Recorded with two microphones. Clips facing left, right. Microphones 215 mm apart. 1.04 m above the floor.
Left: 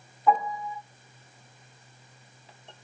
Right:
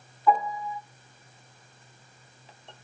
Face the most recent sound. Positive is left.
turn(degrees=20)  # may be behind; listen again after turning